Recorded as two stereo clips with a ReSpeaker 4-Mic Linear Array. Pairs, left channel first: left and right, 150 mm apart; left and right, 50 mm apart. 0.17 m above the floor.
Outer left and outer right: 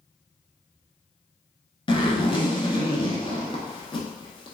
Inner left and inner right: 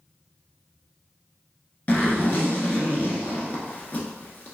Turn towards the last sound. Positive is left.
turn(degrees=35)  # may be behind; listen again after turning